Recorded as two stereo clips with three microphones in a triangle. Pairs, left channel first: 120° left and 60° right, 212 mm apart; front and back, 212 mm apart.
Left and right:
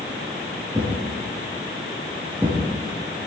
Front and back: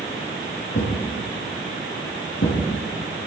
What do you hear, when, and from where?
0.7 s a thud: 20° left, 4.5 m